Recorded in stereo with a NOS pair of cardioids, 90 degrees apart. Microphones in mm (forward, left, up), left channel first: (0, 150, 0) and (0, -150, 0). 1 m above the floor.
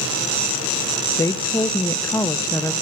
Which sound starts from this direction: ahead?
A woman speaking, at 1.2 s.